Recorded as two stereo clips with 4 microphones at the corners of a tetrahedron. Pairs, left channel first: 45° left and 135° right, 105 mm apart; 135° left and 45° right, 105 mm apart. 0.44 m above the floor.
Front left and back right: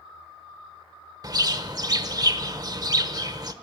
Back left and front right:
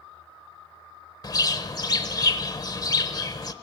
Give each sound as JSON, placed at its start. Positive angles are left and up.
{"t": 1.2, "sound": "a bird", "azimuth_deg": 180, "distance_m": 0.9}